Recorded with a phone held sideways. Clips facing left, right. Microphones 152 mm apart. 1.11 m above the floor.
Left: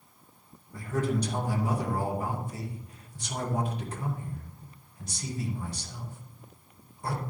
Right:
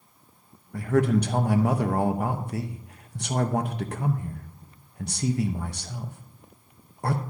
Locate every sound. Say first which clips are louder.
0.7 s a man speaking: right 7 dB; 65° right (ahead or behind), 1.0 m